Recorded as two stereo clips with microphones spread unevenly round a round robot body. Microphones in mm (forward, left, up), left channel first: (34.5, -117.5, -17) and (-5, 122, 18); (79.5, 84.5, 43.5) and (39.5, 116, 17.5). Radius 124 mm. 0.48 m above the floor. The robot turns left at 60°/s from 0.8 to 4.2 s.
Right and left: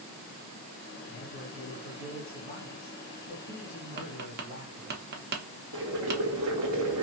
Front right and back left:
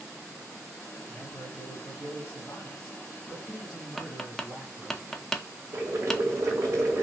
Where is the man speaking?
35° right, 2 m; by 5.0 s 140° left, 2 m.